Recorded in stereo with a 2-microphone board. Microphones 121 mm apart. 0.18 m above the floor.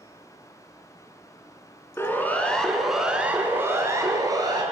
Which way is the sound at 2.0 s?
20° left (ahead or behind).